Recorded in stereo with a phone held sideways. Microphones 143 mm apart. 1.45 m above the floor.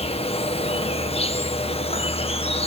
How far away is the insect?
About 1.3 m.